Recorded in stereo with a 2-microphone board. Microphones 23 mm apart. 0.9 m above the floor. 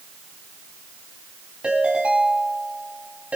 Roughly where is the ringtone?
Right.